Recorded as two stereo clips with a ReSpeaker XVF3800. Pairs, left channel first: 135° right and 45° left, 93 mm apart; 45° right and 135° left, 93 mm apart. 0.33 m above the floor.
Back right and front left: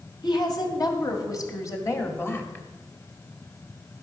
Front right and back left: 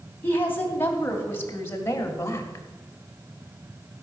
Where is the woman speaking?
110° right, 2.5 m; by 2.6 s 80° right, 1.7 m.